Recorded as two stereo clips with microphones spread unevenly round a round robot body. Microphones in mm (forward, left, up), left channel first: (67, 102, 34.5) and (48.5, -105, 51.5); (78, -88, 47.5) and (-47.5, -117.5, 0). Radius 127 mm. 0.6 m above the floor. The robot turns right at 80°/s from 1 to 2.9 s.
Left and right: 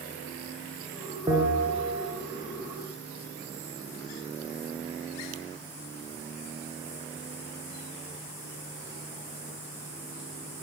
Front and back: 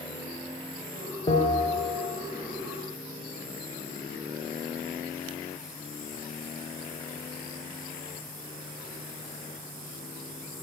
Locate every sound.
1.3 s a bell: 25° right, 3 m; by 2.1 s 40° left, 3 m